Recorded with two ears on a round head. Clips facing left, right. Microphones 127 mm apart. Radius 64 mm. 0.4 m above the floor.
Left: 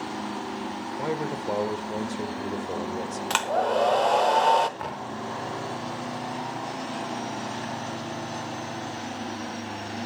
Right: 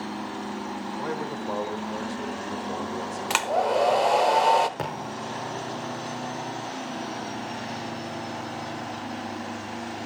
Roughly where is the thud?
Right.